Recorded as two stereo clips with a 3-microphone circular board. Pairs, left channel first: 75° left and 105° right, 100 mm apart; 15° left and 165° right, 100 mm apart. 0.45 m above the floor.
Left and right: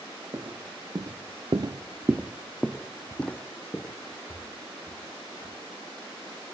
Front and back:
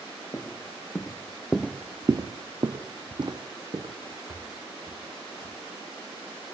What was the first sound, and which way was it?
Footsteps, 55° right.